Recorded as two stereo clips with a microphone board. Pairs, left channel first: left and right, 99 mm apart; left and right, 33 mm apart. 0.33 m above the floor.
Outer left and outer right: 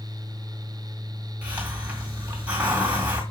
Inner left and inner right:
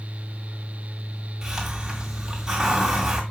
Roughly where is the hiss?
Centre.